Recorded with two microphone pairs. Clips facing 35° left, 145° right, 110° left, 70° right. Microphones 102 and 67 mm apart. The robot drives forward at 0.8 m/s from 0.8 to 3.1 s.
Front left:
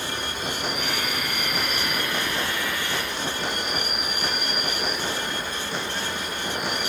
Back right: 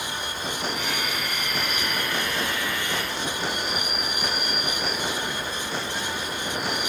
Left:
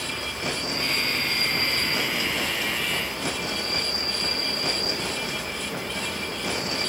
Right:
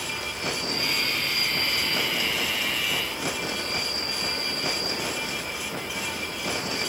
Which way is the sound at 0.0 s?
55° left.